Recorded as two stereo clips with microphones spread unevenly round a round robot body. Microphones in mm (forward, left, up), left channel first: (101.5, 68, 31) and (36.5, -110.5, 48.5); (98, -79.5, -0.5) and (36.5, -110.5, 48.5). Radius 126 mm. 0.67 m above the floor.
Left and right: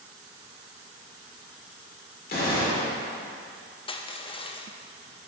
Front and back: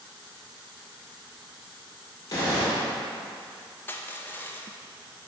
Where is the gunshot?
40° left, 2 m.